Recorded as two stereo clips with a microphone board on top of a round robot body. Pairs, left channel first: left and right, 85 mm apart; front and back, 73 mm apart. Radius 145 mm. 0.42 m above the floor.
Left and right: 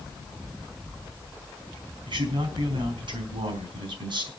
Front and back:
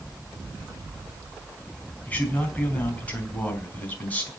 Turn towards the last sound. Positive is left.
turn(degrees=-70)